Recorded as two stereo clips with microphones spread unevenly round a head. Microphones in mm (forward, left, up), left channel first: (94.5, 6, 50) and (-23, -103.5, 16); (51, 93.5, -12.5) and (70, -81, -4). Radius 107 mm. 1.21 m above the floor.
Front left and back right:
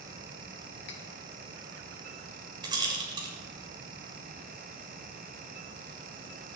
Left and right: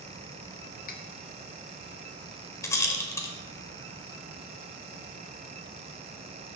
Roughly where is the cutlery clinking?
Ahead left.